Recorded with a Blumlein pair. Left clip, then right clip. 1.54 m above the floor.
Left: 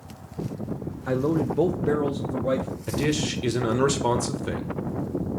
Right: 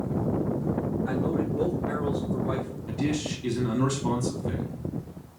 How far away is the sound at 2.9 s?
About 1.6 m.